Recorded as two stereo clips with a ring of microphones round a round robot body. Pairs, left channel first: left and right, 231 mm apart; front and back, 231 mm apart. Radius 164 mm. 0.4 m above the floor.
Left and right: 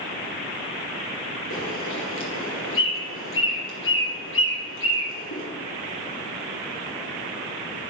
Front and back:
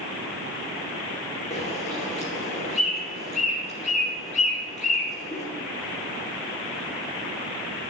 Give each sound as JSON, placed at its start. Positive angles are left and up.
{"t": 1.5, "sound": "a bird", "azimuth_deg": 70, "distance_m": 2.5}